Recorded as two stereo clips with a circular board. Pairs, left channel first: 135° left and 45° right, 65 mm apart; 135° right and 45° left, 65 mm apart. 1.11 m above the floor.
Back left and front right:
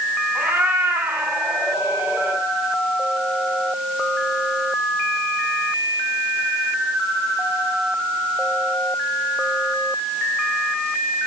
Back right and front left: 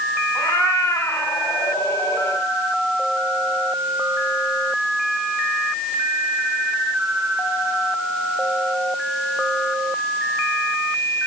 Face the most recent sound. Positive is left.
turn(degrees=-105)